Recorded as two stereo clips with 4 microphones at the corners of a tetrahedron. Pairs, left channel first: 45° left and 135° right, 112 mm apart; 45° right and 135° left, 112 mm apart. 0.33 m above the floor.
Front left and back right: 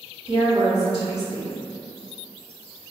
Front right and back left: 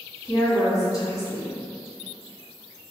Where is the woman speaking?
95° right, 1.6 m.